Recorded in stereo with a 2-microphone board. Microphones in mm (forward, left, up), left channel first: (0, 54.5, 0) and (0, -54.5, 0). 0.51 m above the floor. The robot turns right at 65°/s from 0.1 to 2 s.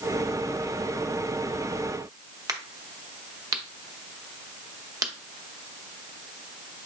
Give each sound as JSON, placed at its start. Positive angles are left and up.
{"t": 2.5, "sound": "a crack", "side_deg": -30, "distance_m": 0.6}